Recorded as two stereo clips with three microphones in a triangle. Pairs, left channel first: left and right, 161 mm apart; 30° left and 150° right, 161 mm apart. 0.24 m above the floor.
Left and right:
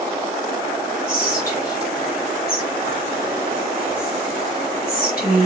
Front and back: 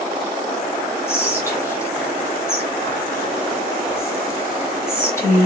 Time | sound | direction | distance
1.1 | whispering | 105° left | 3.5 m